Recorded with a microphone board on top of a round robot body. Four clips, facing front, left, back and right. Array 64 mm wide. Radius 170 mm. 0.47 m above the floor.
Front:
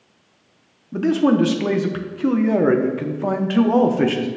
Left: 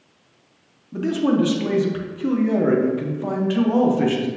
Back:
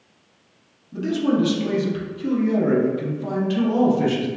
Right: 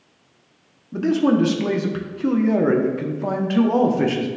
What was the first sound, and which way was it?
A man speaking, 15° right.